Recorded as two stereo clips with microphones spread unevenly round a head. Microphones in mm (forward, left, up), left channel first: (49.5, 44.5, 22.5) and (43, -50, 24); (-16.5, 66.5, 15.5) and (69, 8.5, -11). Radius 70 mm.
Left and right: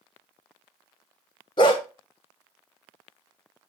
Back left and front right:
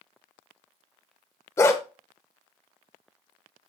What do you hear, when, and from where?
1.6 s a dog barking: 120° left, 1.3 m